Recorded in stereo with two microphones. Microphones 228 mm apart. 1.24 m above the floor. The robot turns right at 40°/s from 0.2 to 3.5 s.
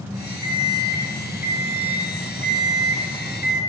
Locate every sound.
0.4 s an alarm clock: 150° left, 1.2 m; by 3.6 s 90° right, 1.2 m